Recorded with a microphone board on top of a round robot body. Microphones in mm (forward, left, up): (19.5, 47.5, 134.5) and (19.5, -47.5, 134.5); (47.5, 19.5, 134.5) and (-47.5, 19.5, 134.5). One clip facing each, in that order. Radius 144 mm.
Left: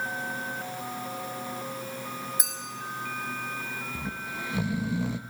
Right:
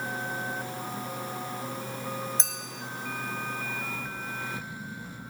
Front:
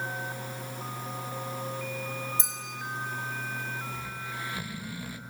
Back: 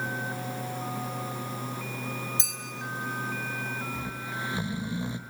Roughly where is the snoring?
Left.